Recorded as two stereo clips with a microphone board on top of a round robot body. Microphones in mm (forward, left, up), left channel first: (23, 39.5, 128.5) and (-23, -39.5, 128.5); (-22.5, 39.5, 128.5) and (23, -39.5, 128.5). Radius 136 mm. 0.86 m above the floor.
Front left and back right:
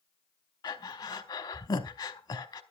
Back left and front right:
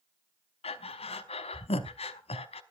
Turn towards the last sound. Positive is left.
turn(degrees=105)